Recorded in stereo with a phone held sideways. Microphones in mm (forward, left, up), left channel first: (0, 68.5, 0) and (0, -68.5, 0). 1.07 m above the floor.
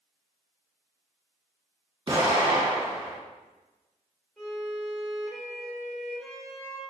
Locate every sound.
2.1 s an explosion: 35° right (ahead or behind), 1.4 m
4.4 s a violin: centre (ahead or behind), 1.7 m